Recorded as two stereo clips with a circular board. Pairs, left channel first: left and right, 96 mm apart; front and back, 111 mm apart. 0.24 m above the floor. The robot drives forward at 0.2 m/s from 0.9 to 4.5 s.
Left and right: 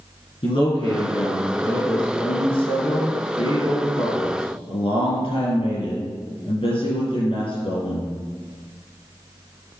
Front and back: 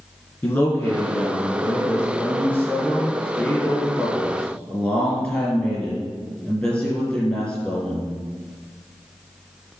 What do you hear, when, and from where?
0.4 s a man speaking: 70° left, 4 m; by 8.1 s 80° left, 3.5 m